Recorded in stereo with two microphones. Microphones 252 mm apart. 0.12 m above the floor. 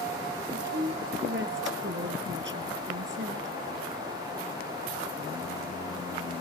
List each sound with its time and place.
0.5 s a woman speaking: 55° right (ahead or behind), 3 m